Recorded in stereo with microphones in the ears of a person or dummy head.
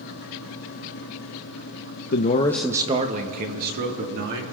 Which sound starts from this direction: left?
A man speaking, at 2.1 s.